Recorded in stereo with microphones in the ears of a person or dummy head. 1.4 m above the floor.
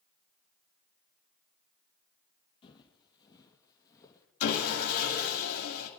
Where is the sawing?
85° left, 2.5 m.